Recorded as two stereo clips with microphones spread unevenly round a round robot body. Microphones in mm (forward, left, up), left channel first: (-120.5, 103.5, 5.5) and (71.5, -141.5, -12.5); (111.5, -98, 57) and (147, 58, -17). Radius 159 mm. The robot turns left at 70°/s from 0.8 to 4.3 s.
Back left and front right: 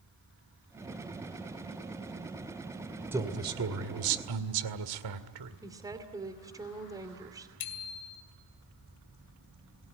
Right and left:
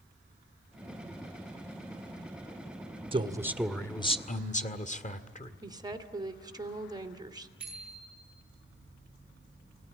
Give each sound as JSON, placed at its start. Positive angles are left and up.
{"t": 3.1, "sound": "a man speaking", "azimuth_deg": 30, "distance_m": 2.0}
{"t": 5.6, "sound": "a woman speaking", "azimuth_deg": 25, "distance_m": 2.5}
{"t": 7.6, "sound": "a bicycle bell", "azimuth_deg": 160, "distance_m": 2.5}